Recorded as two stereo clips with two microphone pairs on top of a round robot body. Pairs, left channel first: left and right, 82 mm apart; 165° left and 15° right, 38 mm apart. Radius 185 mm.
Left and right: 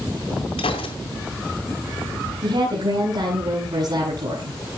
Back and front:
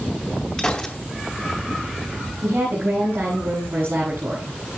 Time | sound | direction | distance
0.6 | a gunshot | 95° left | 1.9 m
2.4 | a woman speaking | 50° right | 8 m